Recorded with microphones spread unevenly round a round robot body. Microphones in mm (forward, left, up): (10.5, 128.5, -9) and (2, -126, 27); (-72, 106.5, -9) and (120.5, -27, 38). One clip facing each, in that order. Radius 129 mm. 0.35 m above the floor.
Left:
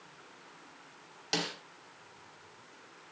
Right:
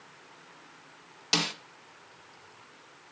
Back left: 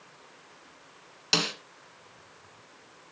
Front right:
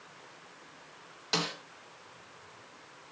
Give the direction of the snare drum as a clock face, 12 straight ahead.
5 o'clock.